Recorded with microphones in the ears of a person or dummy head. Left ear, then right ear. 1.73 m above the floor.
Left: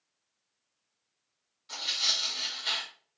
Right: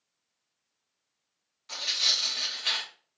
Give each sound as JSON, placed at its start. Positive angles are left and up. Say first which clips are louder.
{"t": 1.7, "sound": "tearing paper", "louder": "right 3 dB", "side_deg": -30, "distance_m": 1.2}